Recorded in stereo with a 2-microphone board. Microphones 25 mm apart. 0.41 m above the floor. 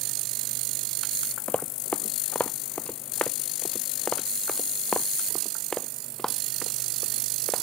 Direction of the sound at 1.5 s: 70° left (ahead or behind).